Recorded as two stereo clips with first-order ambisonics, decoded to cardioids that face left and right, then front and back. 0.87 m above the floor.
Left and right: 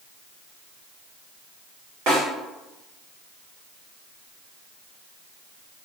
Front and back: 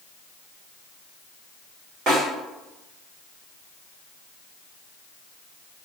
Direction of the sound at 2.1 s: 115° right.